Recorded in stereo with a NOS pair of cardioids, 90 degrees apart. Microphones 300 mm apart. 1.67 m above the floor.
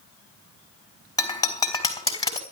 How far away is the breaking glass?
About 4.5 m.